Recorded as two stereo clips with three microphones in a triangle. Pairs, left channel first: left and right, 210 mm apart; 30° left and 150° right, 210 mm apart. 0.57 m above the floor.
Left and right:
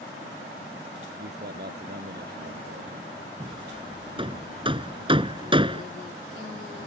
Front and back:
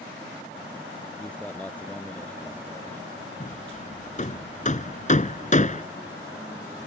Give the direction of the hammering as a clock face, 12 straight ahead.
1 o'clock.